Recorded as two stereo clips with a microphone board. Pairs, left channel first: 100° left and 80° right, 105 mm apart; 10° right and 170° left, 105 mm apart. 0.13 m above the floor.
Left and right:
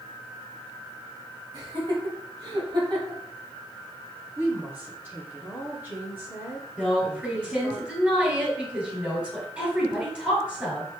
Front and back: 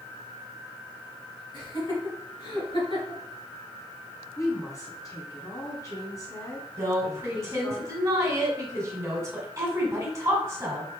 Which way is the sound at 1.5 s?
40° right.